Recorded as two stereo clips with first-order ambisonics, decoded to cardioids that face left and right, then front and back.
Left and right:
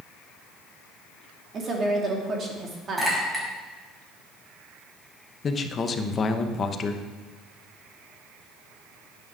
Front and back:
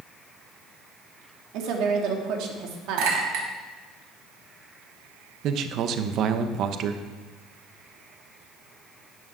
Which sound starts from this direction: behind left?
A man speaking, at 5.4 s.